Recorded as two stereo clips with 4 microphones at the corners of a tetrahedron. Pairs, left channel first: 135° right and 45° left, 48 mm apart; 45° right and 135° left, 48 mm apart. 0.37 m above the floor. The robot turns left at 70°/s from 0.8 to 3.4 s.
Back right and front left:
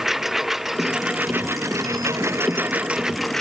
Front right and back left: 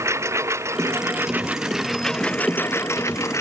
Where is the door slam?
No door slam in this recording.